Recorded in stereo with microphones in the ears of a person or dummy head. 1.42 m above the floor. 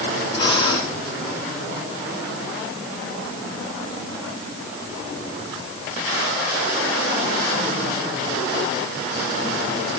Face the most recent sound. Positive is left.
turn(degrees=30)  # may be behind; listen again after turning